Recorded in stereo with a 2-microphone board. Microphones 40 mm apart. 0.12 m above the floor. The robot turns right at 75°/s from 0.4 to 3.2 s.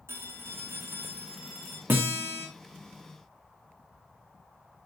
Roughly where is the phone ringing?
Right.